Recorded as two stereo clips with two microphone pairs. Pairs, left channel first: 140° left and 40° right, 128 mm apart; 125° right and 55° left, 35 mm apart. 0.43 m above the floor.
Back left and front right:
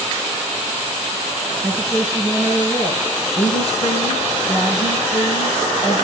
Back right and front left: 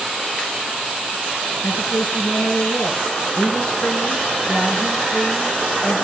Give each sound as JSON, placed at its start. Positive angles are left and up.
{"t": 1.6, "sound": "a woman speaking", "azimuth_deg": -135, "distance_m": 5.0}
{"t": 3.4, "sound": "a woman speaking", "azimuth_deg": 175, "distance_m": 6.0}